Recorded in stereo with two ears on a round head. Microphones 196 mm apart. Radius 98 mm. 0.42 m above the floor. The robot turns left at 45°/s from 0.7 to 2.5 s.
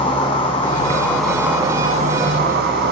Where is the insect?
25° left, 2.5 m; by 2.9 s 55° right, 2.5 m.